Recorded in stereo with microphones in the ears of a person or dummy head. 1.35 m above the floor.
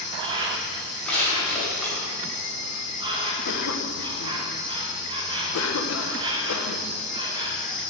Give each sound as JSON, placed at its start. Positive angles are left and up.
{"t": 0.0, "sound": "an insect", "side_deg": -25, "distance_m": 1.2}
{"t": 1.1, "sound": "crushing", "side_deg": 10, "distance_m": 3.0}
{"t": 3.5, "sound": "a cough", "side_deg": 75, "distance_m": 1.1}